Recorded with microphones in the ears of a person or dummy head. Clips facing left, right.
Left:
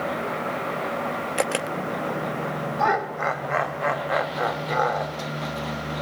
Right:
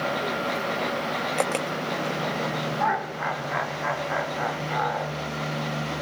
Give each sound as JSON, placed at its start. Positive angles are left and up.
{"t": 1.4, "sound": "a camera shutter", "side_deg": 10, "distance_m": 0.7}
{"t": 2.8, "sound": "laughter", "side_deg": 60, "distance_m": 3.5}